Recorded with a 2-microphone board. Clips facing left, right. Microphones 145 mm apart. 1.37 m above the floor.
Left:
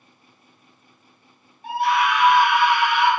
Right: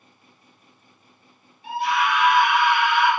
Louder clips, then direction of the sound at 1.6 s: Left 2 dB; 45° left (ahead or behind).